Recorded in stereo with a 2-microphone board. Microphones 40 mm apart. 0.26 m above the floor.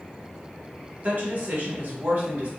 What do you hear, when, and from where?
1.0 s a woman speaking: 45° right (ahead or behind), 1.3 m